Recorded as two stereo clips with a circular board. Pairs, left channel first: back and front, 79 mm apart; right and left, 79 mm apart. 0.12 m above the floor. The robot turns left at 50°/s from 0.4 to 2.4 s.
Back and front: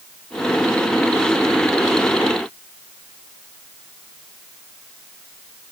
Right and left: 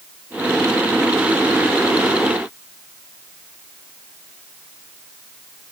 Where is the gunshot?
No gunshot in this recording.